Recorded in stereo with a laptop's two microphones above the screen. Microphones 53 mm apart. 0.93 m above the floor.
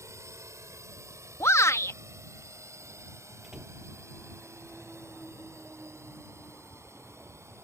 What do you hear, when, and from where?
0.0 s a drone: 70° right (ahead or behind); by 7.7 s 60° right (ahead or behind)
1.4 s a shout: 65° left (ahead or behind)
3.4 s a door slam: 10° right (ahead or behind)